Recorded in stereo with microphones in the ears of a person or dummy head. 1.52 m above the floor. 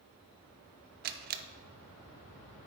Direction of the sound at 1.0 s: 45° right (ahead or behind).